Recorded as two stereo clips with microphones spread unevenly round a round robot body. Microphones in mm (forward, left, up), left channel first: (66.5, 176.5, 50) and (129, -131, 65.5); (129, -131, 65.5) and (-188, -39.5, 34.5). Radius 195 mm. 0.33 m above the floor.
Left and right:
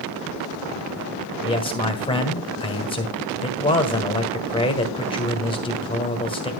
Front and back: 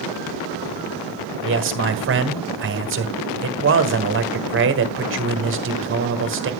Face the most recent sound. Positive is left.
turn(degrees=165)